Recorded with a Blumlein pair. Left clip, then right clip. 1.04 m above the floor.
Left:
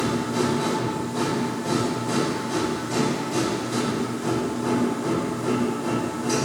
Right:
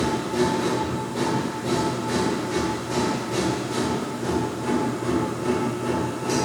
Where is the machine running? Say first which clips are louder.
Right 1 dB; 10° left, 1.8 m.